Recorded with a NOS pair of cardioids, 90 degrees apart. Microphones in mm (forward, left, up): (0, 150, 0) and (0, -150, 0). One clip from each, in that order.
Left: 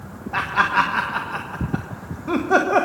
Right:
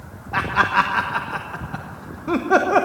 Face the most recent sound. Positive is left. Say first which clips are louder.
# right 1 dB
turn(degrees=-10)